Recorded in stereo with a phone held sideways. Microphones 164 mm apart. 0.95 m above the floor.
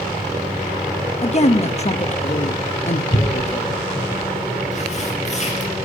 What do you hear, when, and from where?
1.2 s a woman speaking: 40° left (ahead or behind), 0.9 m
3.1 s tearing paper: 45° left (ahead or behind), 4 m